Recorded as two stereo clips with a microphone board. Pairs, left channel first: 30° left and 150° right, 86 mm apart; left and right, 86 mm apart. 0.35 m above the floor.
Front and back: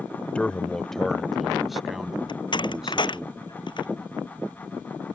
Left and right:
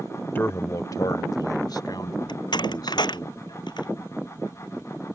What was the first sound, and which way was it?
A man speaking, 80° left.